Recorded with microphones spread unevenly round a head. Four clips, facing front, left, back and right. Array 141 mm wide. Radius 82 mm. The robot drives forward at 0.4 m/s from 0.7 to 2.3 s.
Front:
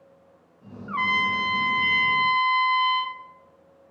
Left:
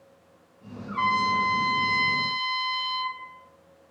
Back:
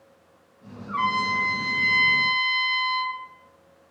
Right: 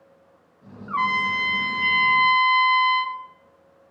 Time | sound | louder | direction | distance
0.9 | a trumpet | even, back 1 dB | 75° right | 1.3 m